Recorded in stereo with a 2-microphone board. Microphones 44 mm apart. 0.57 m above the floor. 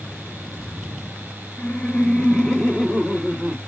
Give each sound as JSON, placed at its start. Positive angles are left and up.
{"t": 1.6, "sound": "laughter", "side_deg": 30, "distance_m": 1.3}